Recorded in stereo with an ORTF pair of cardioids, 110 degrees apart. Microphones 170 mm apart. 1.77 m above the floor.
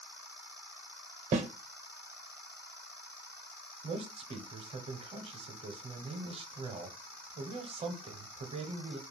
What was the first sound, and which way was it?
A snare drum, 45° right.